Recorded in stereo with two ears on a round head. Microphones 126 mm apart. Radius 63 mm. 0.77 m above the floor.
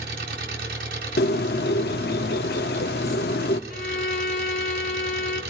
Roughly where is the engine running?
Right.